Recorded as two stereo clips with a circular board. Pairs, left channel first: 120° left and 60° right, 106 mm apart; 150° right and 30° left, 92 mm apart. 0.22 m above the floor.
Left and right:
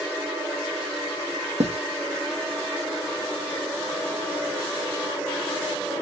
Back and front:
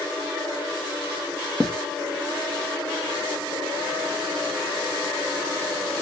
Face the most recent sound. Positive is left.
turn(degrees=-70)